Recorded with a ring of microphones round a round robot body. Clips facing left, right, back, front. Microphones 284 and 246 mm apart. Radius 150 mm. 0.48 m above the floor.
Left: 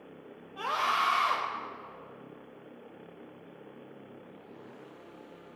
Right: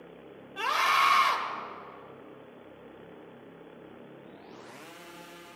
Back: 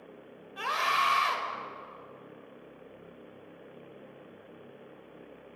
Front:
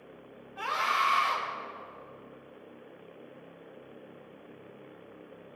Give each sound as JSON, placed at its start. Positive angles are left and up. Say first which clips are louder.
{"t": 0.6, "sound": "a scream", "louder": "right 2 dB, back 1 dB", "azimuth_deg": -135, "distance_m": 2.5}